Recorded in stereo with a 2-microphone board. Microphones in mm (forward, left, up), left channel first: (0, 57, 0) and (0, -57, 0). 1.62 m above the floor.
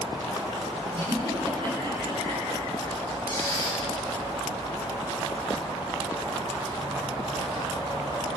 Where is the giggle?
55° right (ahead or behind), 9.5 m.